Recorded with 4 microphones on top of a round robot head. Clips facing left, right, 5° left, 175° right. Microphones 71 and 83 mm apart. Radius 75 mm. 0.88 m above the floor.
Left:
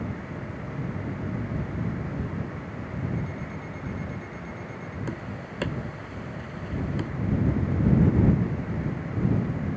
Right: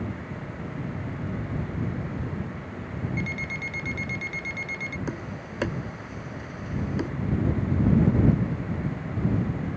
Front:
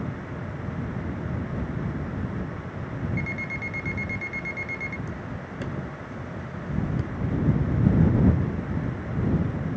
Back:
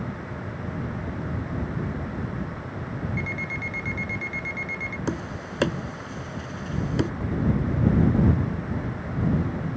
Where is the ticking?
65° right.